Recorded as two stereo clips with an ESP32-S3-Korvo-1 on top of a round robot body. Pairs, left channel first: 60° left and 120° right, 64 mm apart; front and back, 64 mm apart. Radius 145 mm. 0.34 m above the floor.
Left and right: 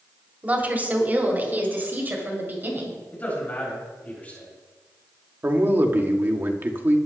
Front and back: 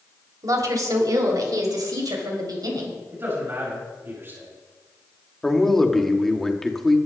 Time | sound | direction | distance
0.4 | a woman speaking | straight behind | 2.5 m
3.1 | a man speaking | 125° left | 5.5 m
5.4 | a man speaking | 85° right | 1.8 m